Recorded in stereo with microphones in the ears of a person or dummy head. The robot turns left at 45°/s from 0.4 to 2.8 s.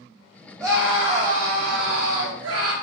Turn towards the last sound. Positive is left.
turn(degrees=-100)